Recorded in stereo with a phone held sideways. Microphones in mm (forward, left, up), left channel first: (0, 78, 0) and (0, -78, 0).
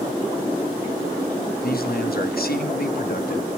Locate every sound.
1.6 s a man speaking: 75° left (ahead or behind), 1.0 m